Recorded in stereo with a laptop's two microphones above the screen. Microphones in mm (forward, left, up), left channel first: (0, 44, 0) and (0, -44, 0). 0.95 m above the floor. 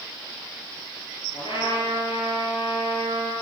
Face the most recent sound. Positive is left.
turn(degrees=70)  # may be behind; listen again after turning